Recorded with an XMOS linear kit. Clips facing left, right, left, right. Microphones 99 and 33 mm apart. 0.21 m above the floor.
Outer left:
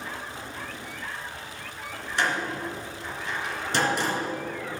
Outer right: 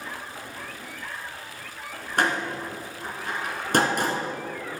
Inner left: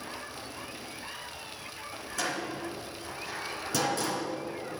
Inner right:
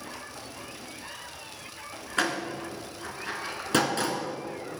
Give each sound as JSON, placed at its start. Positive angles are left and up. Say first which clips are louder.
{"t": 2.2, "sound": "a door slam", "louder": "outer right 2 dB, inner right 5 dB", "side_deg": -55, "distance_m": 2.0}